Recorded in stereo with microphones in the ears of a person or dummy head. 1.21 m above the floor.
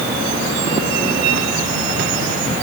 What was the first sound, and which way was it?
Only background noise.